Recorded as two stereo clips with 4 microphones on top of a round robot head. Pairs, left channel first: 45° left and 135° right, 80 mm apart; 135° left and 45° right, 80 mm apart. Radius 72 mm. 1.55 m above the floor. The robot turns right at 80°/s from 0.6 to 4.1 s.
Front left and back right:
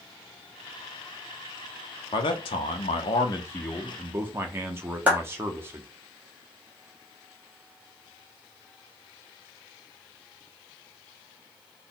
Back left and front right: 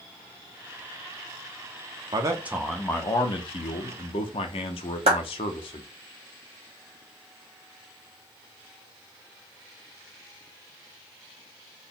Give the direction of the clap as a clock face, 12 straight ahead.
2 o'clock.